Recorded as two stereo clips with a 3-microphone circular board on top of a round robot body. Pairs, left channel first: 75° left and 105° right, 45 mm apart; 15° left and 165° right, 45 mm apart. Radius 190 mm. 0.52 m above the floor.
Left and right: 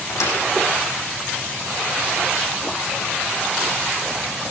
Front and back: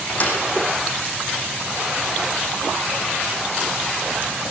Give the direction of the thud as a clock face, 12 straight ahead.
10 o'clock.